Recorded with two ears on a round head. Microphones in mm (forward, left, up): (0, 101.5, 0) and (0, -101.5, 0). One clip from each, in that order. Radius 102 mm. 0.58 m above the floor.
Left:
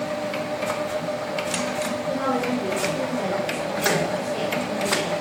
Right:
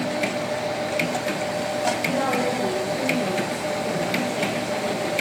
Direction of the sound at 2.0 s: 5° left (ahead or behind).